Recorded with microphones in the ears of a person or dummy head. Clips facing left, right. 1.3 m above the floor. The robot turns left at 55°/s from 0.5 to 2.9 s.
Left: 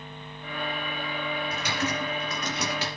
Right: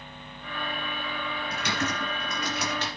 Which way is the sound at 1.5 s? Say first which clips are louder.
Left 1 dB; 55° right (ahead or behind).